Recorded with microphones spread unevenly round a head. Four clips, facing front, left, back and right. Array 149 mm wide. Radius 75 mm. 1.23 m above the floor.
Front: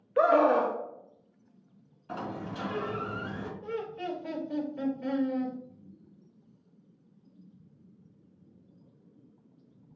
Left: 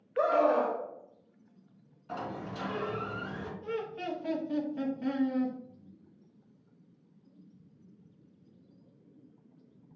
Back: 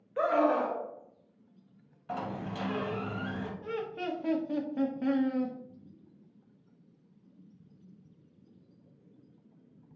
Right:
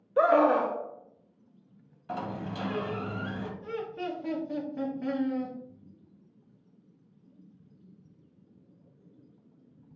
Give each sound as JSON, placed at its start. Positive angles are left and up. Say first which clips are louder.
{"t": 0.2, "sound": "a scream", "louder": "right 4 dB, front 4 dB", "azimuth_deg": -50, "distance_m": 0.7}
{"t": 2.1, "sound": "a sliding door", "louder": "right 3 dB, back 1 dB", "azimuth_deg": -135, "distance_m": 1.5}
{"t": 3.6, "sound": "laughter", "louder": "left 1 dB, front 1 dB", "azimuth_deg": -175, "distance_m": 1.2}